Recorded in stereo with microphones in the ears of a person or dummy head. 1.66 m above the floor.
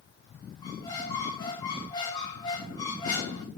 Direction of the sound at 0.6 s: 30° left (ahead or behind).